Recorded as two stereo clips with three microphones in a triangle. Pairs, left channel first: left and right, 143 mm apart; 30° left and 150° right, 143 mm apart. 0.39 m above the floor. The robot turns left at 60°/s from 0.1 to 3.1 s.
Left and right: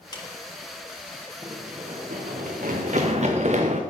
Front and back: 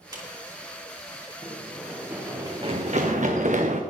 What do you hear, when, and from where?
0.1 s a clap: 150° left, 2.5 m; by 0.2 s 140° left, 2.5 m
1.4 s running footsteps: 30° right, 3.5 m; by 3.8 s 120° right, 1.5 m